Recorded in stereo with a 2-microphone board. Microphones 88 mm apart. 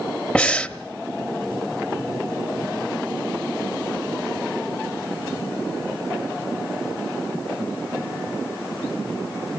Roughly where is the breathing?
Centre.